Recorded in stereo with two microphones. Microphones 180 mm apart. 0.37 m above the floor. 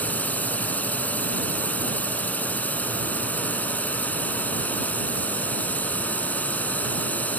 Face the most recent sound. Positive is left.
turn(degrees=10)  # may be behind; listen again after turning